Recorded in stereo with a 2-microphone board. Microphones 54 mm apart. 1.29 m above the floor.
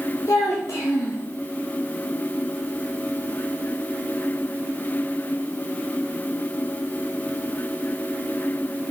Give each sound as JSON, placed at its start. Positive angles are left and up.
{"t": 0.3, "sound": "a child speaking", "side_deg": 80, "distance_m": 1.2}